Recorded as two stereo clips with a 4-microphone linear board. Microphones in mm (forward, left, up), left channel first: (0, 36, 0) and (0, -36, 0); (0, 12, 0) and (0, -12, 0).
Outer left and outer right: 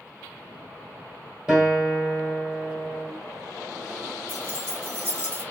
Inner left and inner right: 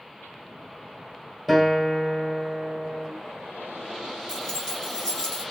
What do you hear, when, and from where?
1.5 s a guitar: 10° right (ahead or behind), 1.4 m
4.3 s keys jangling: 25° left (ahead or behind), 1.0 m